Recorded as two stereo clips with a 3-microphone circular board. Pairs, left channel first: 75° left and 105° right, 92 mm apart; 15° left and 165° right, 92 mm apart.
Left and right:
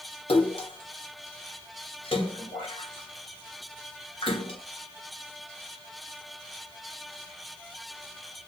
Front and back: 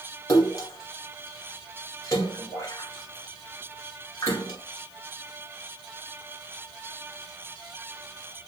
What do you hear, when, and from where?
0.3 s a splash: 65° left, 1.7 m